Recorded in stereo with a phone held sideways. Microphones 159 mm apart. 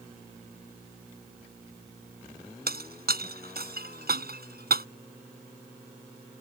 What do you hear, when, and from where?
2.7 s breaking glass: 75° right (ahead or behind)